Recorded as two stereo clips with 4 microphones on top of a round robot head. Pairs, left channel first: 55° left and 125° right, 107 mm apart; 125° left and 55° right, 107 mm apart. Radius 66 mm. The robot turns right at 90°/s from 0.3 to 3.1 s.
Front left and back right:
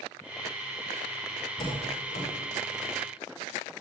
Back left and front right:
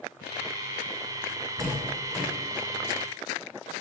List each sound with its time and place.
1.6 s a door slam: straight ahead, 7.5 m; by 2.3 s 60° left, 7.5 m